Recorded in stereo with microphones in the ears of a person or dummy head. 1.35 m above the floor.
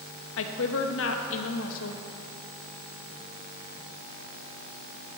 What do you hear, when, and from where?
0.4 s a woman speaking: 65° left (ahead or behind), 0.8 m